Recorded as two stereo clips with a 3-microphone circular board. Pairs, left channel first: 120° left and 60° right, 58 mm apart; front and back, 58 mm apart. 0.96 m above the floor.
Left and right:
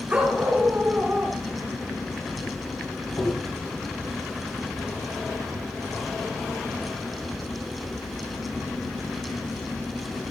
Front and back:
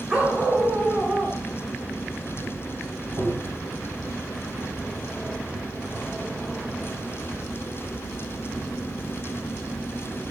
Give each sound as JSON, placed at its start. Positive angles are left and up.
{"t": 0.1, "sound": "a dog barking", "azimuth_deg": -120, "distance_m": 4.5}
{"t": 1.4, "sound": "keys jangling", "azimuth_deg": -30, "distance_m": 0.7}
{"t": 3.2, "sound": "tapping", "azimuth_deg": 170, "distance_m": 7.0}